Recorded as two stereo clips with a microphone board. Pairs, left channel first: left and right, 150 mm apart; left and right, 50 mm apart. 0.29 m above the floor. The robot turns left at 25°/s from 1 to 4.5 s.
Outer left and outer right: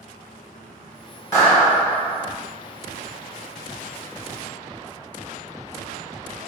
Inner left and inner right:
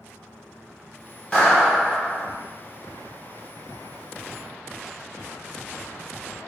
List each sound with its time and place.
1.3 s a clap: 25° left (ahead or behind), 1.9 m; by 2.3 s 5° left (ahead or behind), 1.9 m